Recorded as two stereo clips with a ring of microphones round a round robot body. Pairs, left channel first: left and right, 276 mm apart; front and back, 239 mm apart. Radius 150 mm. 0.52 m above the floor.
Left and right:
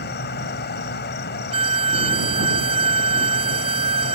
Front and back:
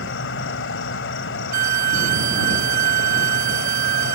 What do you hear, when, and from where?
0.0 s an insect: 35° left
1.5 s a violin: 160° right